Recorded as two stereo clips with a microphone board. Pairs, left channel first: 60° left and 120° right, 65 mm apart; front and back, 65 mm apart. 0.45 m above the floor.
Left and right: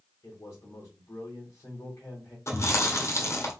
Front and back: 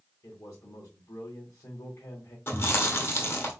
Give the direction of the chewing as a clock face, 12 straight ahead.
11 o'clock.